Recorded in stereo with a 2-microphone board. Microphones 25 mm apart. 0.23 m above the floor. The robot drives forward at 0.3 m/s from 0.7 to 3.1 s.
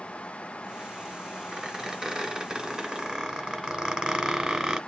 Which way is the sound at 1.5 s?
30° right (ahead or behind).